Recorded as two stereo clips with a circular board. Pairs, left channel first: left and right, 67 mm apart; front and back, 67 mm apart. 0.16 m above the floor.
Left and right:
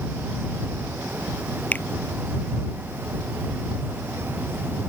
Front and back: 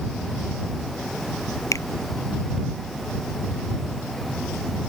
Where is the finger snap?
30° left.